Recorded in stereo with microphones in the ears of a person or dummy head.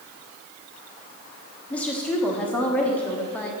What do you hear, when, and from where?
1.7 s a woman speaking: 5° left (ahead or behind), 1.0 m